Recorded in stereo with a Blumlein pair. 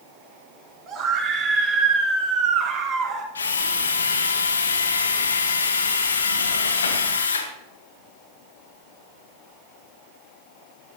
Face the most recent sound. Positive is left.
turn(degrees=70)